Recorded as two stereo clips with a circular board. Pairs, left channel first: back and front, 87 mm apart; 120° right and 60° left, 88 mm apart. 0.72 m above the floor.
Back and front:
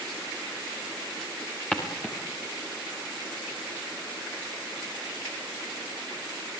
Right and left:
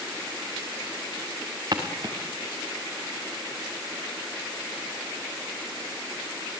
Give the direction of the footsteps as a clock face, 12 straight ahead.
9 o'clock.